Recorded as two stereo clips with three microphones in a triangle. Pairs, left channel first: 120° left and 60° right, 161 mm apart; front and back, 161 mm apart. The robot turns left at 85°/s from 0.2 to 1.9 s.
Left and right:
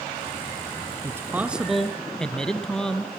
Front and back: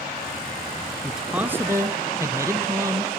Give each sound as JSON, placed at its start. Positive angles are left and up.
{"t": 1.0, "sound": "a man speaking", "azimuth_deg": -90, "distance_m": 1.1}